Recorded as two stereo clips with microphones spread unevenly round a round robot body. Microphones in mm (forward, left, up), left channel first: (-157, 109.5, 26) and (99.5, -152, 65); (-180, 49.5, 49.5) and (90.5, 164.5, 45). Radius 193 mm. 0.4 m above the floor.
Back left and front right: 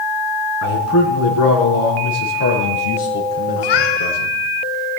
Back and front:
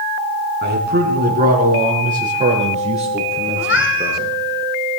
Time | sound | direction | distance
0.6 | a man speaking | 80° left | 4 m
3.6 | a cat meowing | 150° left | 2.5 m